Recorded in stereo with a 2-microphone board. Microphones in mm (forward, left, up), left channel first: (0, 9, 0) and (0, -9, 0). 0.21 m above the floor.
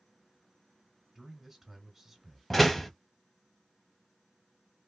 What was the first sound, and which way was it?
A man speaking, centre (ahead or behind).